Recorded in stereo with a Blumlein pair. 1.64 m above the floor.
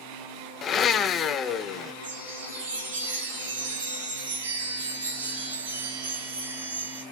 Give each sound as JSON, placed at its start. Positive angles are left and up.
{"t": 0.6, "sound": "a blender", "azimuth_deg": 25, "distance_m": 0.6}
{"t": 2.0, "sound": "a chime", "azimuth_deg": -65, "distance_m": 3.0}